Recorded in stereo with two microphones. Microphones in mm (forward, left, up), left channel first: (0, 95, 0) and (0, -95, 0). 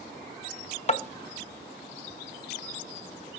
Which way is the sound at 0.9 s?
35° left (ahead or behind).